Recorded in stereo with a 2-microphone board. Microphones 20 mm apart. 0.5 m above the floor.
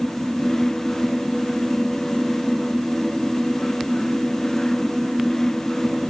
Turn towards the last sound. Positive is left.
No sound to turn to.